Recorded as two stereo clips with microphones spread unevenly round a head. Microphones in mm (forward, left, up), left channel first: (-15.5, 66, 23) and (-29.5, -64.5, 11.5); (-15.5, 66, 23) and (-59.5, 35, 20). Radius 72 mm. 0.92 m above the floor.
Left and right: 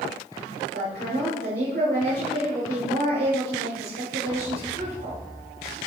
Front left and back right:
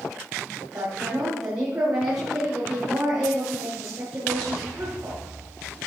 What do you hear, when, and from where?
0.7 s a woman speaking: 90° right, 5 m